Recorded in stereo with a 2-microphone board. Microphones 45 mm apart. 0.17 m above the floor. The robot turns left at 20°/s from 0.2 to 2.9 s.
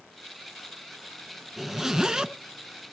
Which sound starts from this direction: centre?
A zipper, at 1.6 s.